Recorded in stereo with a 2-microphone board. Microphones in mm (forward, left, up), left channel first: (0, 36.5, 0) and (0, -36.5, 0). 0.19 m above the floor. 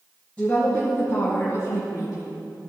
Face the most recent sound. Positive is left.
turn(degrees=60)  # may be behind; listen again after turning